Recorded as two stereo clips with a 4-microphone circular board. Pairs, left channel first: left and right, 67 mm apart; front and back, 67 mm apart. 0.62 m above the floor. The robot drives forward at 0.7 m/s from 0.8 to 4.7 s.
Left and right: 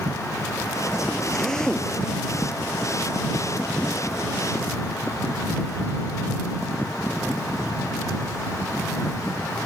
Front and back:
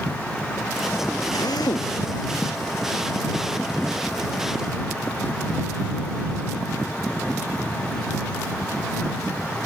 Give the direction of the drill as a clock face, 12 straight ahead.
12 o'clock.